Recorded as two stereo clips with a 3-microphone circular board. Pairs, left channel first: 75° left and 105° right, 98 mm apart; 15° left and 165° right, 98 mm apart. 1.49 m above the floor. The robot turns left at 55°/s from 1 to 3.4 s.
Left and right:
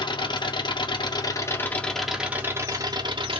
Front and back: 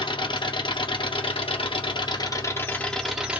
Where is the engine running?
40° left, 1.0 m; by 3.4 s 90° right, 1.0 m.